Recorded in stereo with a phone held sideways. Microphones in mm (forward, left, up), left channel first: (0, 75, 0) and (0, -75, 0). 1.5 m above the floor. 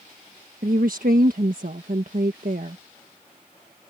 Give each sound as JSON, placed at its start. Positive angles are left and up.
{"t": 0.6, "sound": "a woman speaking", "side_deg": -70}